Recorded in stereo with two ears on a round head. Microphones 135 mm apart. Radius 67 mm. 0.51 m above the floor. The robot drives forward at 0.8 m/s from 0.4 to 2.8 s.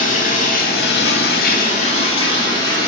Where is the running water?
55° left (ahead or behind), 0.9 m; by 2.9 s 30° left (ahead or behind), 1.6 m.